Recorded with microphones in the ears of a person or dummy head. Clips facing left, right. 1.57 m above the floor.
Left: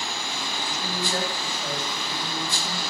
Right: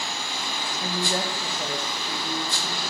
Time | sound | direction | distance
0.8 | a woman speaking | 20° right (ahead or behind) | 1.5 m